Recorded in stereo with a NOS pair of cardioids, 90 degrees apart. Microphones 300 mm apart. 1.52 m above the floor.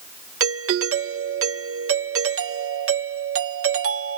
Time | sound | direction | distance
0.4 | a doorbell | 50° right | ?